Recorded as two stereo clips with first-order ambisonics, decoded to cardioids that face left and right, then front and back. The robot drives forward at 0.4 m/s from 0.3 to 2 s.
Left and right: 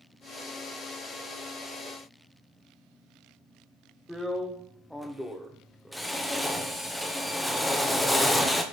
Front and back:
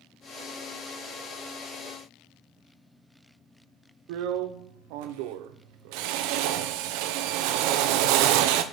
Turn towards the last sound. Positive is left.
turn(degrees=175)